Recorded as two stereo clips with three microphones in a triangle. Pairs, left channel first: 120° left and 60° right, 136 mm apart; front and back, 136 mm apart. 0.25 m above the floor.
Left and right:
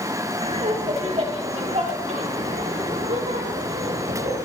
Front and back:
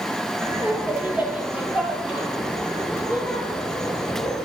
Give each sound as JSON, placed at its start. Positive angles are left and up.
{"t": 0.4, "sound": "laughter", "azimuth_deg": -105, "distance_m": 4.5}